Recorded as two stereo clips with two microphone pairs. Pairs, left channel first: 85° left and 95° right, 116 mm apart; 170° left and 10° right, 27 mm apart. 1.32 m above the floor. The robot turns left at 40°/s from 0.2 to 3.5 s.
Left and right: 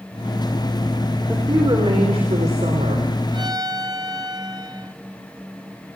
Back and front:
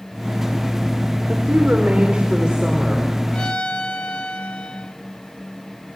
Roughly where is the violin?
Behind right.